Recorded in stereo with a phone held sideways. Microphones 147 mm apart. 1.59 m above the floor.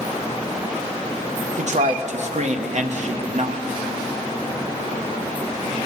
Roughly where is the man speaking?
Right.